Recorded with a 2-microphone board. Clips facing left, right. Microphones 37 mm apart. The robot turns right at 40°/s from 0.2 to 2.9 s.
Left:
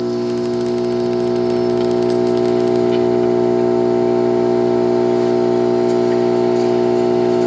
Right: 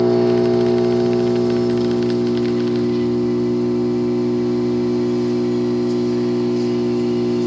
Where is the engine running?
25° right, 1.2 m; by 7.5 s 85° left, 1.2 m.